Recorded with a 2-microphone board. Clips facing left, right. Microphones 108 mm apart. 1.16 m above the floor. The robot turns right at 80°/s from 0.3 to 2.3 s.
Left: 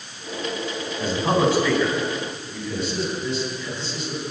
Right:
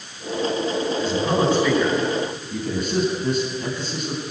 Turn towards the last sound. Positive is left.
turn(degrees=-50)  # may be behind; listen again after turning